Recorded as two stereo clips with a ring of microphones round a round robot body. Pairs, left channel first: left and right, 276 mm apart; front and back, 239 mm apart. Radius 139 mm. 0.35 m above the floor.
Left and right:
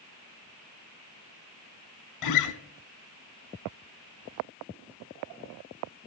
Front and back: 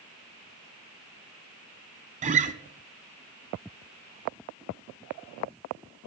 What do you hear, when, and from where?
2.2 s a guitar: 120° left, 0.7 m